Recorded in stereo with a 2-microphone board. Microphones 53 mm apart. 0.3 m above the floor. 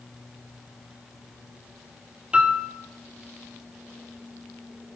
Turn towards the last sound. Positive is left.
turn(degrees=-20)  # may be behind; listen again after turning